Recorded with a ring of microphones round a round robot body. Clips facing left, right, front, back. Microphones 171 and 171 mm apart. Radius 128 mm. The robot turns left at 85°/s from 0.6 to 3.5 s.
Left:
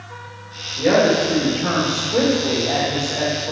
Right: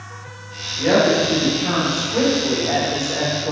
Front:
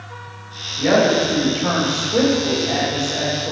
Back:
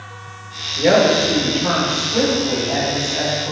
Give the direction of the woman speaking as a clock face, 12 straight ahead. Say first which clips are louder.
Even, back 2 dB; 7 o'clock.